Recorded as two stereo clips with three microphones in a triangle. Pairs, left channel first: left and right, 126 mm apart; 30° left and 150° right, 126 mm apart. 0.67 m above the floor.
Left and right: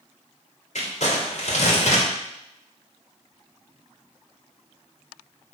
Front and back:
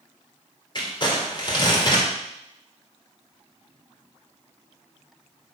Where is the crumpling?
80° left, 2 m.